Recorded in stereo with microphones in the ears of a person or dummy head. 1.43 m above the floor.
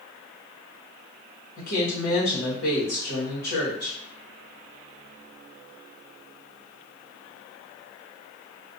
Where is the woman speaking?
55° left (ahead or behind), 1.2 m.